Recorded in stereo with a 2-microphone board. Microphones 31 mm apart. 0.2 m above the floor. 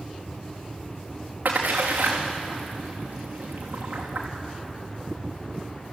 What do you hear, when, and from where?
1.4 s a splash: 70° right (ahead or behind), 4.5 m